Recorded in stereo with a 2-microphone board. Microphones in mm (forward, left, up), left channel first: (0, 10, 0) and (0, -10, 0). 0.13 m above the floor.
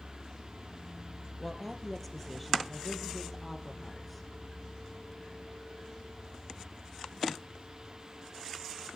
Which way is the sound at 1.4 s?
5° left (ahead or behind).